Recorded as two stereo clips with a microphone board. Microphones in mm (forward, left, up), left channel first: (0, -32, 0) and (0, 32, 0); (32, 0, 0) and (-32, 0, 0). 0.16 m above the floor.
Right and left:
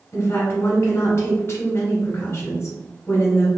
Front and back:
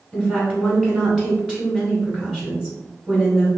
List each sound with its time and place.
0.1 s a woman speaking: 105° right, 1.3 m